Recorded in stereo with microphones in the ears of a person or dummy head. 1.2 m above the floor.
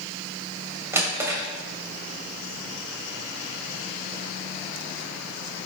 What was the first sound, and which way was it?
A drawer, 10° right (ahead or behind).